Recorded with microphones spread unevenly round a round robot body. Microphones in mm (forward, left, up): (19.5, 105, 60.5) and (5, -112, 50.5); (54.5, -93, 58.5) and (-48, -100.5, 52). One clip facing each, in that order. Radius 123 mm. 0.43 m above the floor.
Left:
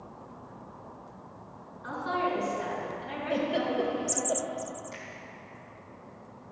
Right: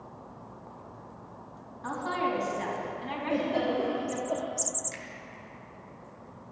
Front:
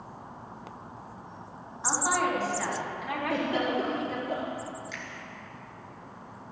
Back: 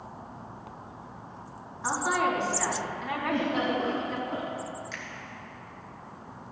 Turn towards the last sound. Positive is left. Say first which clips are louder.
# even, even
turn(degrees=-85)